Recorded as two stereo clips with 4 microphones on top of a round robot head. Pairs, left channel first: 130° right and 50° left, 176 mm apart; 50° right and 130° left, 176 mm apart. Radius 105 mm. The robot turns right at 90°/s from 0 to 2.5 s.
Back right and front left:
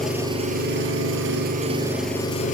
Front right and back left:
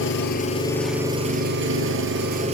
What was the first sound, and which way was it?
An engine running, 40° right.